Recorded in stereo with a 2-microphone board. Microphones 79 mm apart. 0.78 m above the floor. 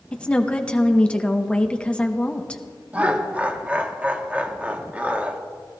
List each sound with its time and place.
0.1 s a woman speaking: 15° left (ahead or behind), 0.9 m
2.9 s laughter: 20° right (ahead or behind), 1.2 m